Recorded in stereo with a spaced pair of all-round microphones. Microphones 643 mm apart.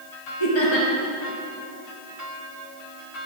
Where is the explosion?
I don't hear an explosion.